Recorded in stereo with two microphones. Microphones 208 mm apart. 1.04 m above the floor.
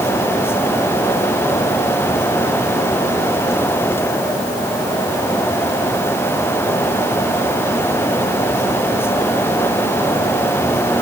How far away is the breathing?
No breathing in this recording.